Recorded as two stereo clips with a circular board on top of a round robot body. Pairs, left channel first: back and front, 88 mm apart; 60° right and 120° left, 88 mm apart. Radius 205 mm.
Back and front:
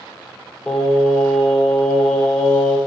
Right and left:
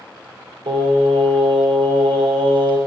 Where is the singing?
95° left, 3 m.